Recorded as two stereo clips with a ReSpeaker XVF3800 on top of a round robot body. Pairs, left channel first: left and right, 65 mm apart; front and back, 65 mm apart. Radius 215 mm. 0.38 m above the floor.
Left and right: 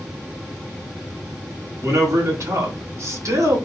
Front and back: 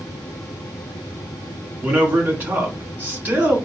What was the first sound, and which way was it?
A man speaking, 120° right.